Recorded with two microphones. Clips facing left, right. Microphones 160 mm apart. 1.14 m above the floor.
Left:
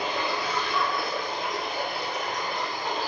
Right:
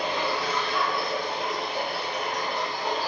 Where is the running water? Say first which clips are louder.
Right 1 dB; 75° right (ahead or behind), 1.5 m.